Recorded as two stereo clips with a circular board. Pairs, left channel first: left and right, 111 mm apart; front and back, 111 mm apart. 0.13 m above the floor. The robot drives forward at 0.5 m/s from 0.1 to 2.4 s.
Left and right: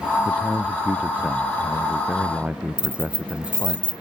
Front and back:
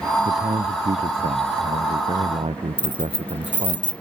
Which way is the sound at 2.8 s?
30° right.